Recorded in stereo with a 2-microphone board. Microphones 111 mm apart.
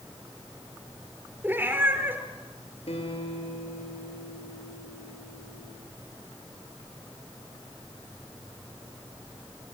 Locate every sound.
1.4 s a cat meowing: 20° right (ahead or behind), 3 m
2.9 s a guitar: 75° left (ahead or behind), 8 m